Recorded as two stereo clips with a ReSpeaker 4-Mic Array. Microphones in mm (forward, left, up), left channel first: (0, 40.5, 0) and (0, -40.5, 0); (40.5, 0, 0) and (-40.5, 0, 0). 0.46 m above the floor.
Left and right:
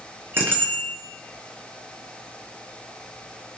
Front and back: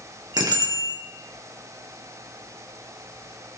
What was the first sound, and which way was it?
A bicycle bell, 150° right.